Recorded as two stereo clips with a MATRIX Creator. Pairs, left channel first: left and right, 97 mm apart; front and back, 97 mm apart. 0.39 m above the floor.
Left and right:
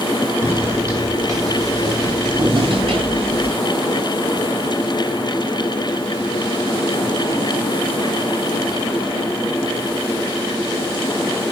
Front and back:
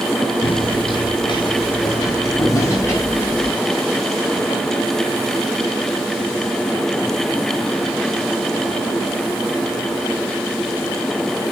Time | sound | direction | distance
0.4 | footsteps | 25° right | 6 m